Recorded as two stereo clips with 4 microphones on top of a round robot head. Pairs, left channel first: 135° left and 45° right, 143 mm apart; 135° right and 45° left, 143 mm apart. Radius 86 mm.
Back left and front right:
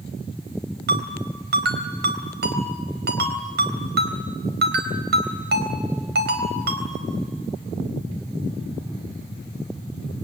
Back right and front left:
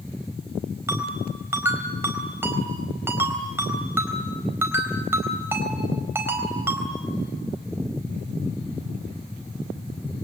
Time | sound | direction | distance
0.9 | a ringtone | 30° right | 4 m